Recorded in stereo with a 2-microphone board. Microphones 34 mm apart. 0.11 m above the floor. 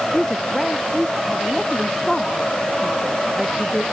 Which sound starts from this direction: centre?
A woman speaking, at 0.1 s.